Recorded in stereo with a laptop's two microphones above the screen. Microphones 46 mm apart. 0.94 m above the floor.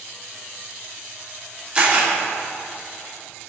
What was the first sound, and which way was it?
A camera shutter, 25° right (ahead or behind).